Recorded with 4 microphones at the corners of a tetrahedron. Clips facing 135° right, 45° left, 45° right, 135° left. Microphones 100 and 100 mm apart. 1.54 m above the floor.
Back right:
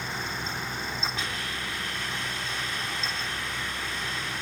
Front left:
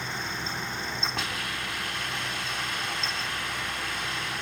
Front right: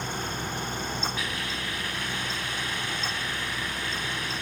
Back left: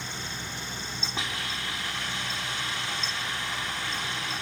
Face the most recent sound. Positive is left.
turn(degrees=70)